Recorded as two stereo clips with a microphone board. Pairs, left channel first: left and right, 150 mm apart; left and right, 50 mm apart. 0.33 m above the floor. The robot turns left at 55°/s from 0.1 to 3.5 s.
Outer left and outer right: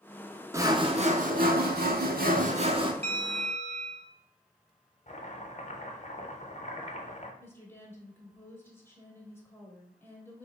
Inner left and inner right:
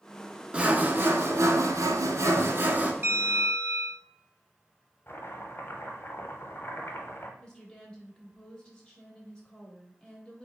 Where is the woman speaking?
15° left (ahead or behind), 1.2 m.